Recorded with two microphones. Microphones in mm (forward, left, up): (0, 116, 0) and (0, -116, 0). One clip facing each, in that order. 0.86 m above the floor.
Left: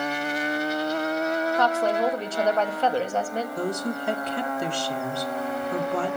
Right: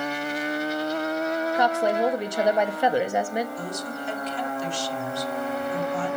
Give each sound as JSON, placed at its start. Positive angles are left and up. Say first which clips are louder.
{"t": 1.6, "sound": "a woman speaking", "louder": "right 2 dB", "side_deg": -15, "distance_m": 1.4}
{"t": 3.6, "sound": "a woman speaking", "louder": "left 5 dB", "side_deg": 65, "distance_m": 1.8}